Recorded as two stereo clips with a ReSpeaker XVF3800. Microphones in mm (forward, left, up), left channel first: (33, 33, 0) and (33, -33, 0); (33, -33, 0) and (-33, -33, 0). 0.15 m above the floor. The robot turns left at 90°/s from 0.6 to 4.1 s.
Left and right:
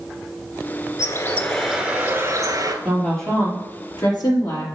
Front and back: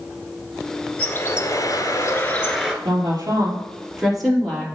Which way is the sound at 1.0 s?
55° left.